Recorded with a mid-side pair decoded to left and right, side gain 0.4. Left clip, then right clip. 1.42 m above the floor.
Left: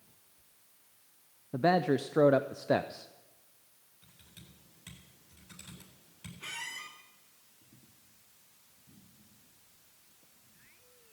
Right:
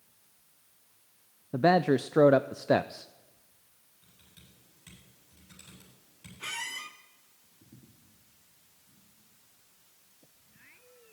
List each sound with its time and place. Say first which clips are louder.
1.5 s a man speaking: right 4 dB; 30° right, 0.5 m
4.0 s typing on a keyboard: left 2 dB; 25° left, 8.5 m
6.4 s a squeak: right 4 dB; 45° right, 2 m